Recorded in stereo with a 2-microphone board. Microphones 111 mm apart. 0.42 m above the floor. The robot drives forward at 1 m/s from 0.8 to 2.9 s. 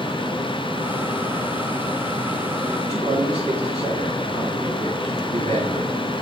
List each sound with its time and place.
2.8 s a man speaking: 70° right (ahead or behind), 3 m